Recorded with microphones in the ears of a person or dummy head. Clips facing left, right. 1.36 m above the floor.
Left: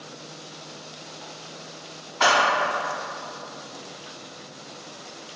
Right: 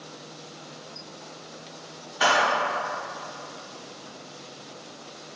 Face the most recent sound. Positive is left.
turn(degrees=-10)  # may be behind; listen again after turning